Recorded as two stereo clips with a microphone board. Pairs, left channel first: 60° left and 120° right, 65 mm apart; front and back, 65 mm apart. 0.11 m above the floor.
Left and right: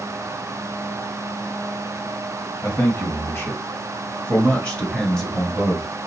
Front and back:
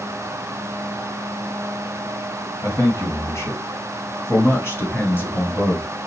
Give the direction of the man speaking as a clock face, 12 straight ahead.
11 o'clock.